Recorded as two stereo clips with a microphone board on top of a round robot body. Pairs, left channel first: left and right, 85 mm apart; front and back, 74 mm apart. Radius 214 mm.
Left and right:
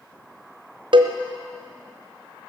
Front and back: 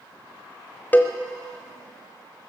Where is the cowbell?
65° right, 1.0 m.